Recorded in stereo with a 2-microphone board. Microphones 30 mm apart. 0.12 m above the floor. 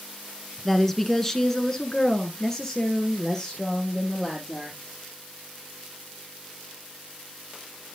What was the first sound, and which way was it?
A woman speaking, 10° left (ahead or behind).